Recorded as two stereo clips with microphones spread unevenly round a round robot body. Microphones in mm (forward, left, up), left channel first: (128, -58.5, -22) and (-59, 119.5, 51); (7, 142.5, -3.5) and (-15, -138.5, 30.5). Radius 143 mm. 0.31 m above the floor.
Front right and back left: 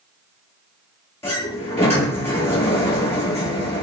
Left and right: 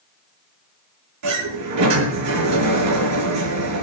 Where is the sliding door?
120° right, 7 m.